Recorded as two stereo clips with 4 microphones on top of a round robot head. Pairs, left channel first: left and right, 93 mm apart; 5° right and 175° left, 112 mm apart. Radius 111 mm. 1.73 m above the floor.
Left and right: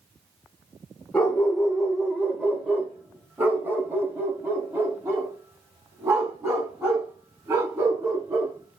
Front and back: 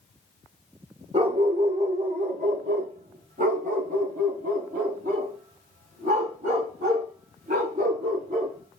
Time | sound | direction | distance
1.1 | a dog barking | 165° left | 1.5 m